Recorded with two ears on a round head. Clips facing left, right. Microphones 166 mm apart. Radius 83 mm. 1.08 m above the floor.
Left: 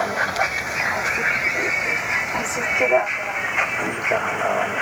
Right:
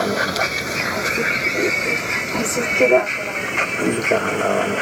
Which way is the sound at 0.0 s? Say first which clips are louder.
Right 3 dB; 45° right (ahead or behind).